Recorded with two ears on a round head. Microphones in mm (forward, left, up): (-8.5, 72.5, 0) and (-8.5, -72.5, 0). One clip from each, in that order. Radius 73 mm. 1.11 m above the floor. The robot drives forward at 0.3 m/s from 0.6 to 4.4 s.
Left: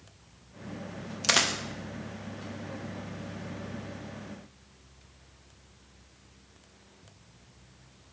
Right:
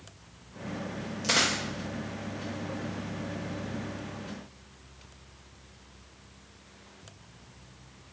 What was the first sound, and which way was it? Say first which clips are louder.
A dropped coin: left 1 dB; 45° left (ahead or behind).